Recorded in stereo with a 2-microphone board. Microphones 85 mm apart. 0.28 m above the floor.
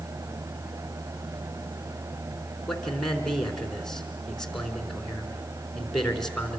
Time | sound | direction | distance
2.7 | a man speaking | 5° left (ahead or behind) | 3.5 m